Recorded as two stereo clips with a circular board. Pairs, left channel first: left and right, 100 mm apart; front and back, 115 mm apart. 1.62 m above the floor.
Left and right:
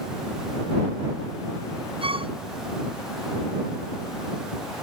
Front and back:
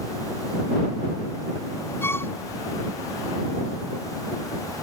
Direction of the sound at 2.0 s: 70° right.